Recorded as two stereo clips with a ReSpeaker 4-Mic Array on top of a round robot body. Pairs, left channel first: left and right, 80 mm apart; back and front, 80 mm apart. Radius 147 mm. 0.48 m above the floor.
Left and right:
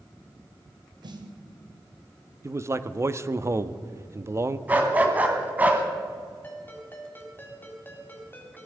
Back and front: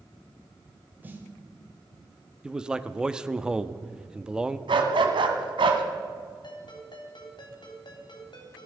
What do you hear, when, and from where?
1.0 s a snare drum: 65° right, 2.0 m
2.4 s a man speaking: 75° right, 1.0 m
4.7 s a dog barking: 20° right, 1.7 m
6.4 s a ringtone: 155° left, 3 m